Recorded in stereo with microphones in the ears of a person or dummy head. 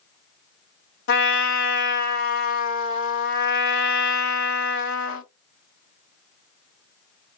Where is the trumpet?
55° left (ahead or behind), 0.9 m.